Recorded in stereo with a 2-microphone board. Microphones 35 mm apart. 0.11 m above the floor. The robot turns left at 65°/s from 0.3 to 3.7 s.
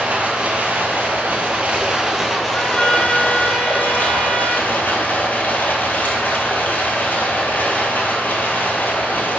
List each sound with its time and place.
0.0 s running water: 45° right, 1.4 m; by 9.4 s 95° left, 1.4 m
2.5 s a trumpet: 25° left (ahead or behind), 1.4 m; by 4.7 s 5° left (ahead or behind), 1.4 m